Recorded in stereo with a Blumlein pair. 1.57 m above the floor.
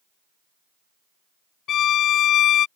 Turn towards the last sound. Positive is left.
turn(degrees=30)